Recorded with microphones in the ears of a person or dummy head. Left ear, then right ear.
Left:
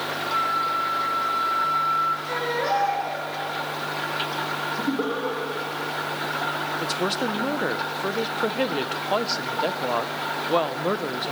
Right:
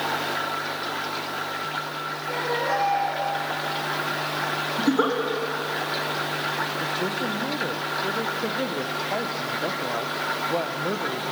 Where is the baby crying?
80° left, 8.5 m.